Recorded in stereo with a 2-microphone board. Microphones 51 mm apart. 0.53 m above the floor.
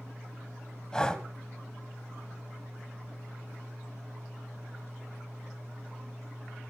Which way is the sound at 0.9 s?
15° left (ahead or behind).